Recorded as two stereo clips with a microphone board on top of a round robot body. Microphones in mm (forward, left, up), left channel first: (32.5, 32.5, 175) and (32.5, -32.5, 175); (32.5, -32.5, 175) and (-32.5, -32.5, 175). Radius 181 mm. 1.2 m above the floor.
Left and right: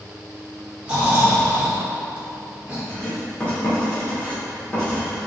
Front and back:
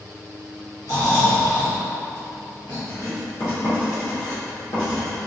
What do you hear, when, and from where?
0.8 s snoring: 20° right, 1.1 m
2.9 s writing: 20° left, 1.6 m